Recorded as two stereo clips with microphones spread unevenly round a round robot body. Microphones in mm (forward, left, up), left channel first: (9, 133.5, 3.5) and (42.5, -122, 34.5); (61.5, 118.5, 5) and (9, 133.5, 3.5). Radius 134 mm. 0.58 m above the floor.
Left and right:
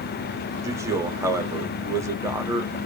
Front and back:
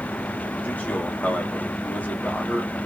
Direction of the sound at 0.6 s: Straight ahead.